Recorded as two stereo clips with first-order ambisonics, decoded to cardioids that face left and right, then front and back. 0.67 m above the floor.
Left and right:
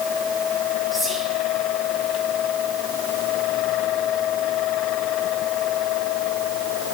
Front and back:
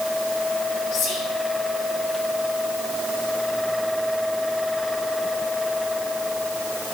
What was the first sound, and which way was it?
Whispering, 5° right.